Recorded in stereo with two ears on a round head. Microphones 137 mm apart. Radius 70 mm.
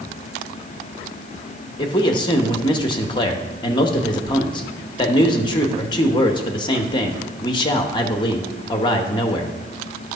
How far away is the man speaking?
About 0.8 m.